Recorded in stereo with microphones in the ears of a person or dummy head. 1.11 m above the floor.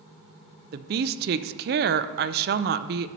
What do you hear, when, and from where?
0.7 s a woman speaking: 40° right (ahead or behind), 0.5 m